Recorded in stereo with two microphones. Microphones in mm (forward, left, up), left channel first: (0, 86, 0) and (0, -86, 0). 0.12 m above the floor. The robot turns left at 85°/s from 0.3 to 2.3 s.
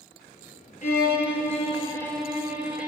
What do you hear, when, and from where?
0.8 s a violin: 120° left, 0.6 m; by 2.9 s 5° right, 0.6 m